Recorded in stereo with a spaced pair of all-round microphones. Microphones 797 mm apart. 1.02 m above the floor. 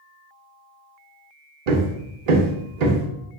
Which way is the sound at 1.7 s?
55° right (ahead or behind).